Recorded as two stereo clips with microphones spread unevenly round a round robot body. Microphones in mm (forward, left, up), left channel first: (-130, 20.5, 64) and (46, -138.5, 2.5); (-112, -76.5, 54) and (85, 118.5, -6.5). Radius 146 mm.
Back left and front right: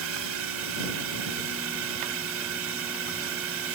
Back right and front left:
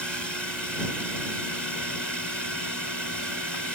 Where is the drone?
45° right.